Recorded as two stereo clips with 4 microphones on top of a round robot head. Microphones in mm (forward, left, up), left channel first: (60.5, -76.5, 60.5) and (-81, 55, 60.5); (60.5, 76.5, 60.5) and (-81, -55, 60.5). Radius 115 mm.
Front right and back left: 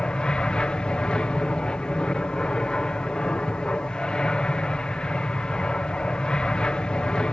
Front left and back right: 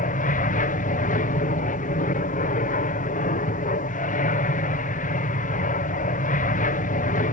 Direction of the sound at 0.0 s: 40° left.